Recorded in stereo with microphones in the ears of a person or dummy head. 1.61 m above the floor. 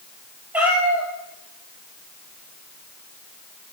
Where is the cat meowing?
10° right (ahead or behind), 3.5 m.